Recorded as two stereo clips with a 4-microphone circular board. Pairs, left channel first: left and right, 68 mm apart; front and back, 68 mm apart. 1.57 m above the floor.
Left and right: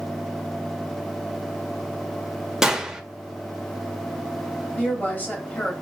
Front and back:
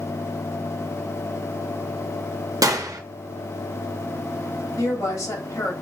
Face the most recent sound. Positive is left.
turn(degrees=25)